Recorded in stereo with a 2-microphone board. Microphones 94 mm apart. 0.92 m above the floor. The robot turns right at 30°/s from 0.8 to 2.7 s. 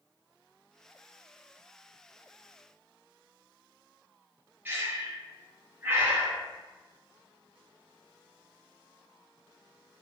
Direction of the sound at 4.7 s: 20° right (ahead or behind).